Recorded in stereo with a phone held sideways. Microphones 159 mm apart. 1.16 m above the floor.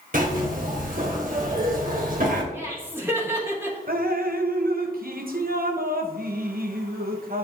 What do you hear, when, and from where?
0.1 s a zipper: 60° right (ahead or behind), 1.5 m
2.5 s laughter: 15° right (ahead or behind), 1.8 m
3.9 s dripping: 65° right (ahead or behind), 0.7 m